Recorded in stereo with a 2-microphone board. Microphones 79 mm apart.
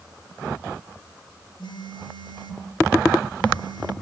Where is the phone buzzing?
70° left (ahead or behind), 5.5 m.